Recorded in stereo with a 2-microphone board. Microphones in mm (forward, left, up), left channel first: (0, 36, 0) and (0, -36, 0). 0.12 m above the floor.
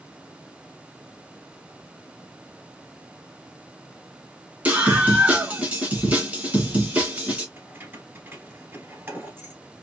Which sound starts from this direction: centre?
A scream, at 4.7 s.